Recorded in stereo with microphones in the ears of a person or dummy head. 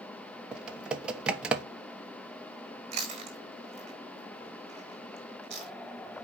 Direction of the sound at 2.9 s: 30° right (ahead or behind).